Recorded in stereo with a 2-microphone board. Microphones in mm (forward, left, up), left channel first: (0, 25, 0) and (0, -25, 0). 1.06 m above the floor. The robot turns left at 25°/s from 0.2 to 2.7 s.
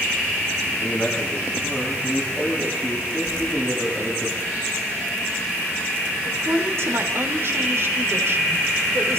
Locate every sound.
0.8 s a man speaking: 15° left, 8.5 m; by 4.3 s 35° right, 8.5 m
3.3 s keys jangling: 80° right, 3 m
6.2 s a woman speaking: 55° right (ahead or behind), 3 m